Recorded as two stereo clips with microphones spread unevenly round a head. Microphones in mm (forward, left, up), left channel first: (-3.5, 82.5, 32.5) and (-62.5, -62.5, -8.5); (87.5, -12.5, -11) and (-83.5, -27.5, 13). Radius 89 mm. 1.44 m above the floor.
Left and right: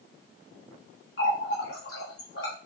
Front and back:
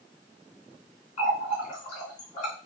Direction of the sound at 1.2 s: 60° left.